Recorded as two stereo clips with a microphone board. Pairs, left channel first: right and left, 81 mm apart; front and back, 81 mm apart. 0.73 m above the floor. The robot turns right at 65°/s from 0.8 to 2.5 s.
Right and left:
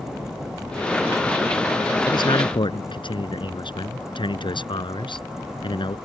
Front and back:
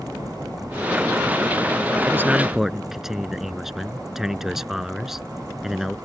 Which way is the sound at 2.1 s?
120° right.